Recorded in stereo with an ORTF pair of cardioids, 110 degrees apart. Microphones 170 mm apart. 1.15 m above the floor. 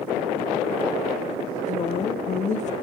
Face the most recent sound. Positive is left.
turn(degrees=45)